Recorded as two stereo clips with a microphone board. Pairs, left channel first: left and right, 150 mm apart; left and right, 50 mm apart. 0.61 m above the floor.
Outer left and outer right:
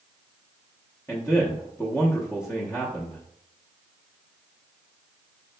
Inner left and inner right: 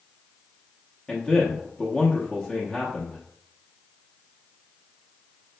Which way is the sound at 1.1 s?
20° left (ahead or behind).